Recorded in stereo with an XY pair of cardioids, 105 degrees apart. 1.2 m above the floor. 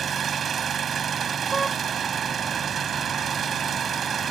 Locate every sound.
0.0 s an engine running: 50° right
1.5 s a car horn: 30° right